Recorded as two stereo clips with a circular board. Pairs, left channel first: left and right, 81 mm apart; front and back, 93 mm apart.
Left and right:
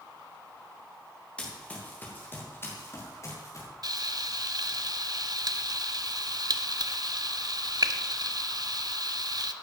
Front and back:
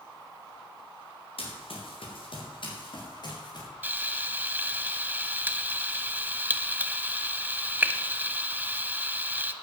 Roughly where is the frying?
Right.